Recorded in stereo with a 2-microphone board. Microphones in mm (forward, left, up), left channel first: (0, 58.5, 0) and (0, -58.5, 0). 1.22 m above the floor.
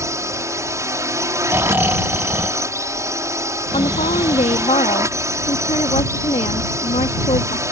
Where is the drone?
25° right (ahead or behind).